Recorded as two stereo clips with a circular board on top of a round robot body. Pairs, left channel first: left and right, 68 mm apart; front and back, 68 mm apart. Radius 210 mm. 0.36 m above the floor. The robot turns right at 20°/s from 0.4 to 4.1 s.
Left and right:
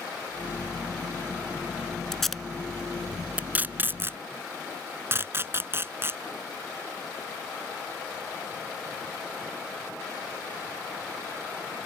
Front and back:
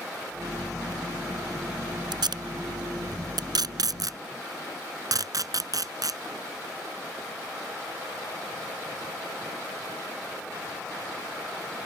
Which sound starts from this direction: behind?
Tape being pulled, at 2.1 s.